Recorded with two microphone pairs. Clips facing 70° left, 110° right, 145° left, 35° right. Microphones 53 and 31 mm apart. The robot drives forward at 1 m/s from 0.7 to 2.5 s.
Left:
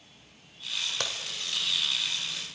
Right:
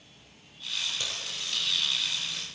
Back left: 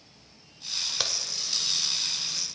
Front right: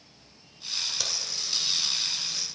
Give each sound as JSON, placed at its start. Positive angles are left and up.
{"t": 1.0, "sound": "a crack", "azimuth_deg": 85, "distance_m": 1.5}